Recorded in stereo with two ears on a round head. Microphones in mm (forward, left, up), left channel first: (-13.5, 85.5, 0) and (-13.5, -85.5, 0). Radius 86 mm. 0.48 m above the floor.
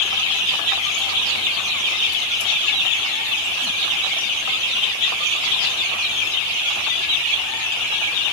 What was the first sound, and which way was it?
Only background noise.